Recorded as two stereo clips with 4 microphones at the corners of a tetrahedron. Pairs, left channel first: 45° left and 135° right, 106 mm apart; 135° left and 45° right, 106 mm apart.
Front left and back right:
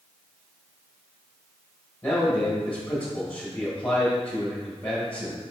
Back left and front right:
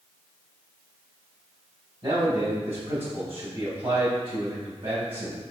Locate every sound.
2.0 s a man speaking: 30° right, 1.9 m